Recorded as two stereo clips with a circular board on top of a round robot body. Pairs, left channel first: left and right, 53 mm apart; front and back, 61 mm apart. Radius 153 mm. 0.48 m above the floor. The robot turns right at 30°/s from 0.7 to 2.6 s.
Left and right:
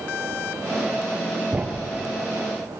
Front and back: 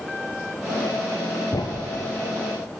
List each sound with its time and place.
1.5 s a thud: 25° right, 1.5 m; by 1.9 s 15° right, 1.5 m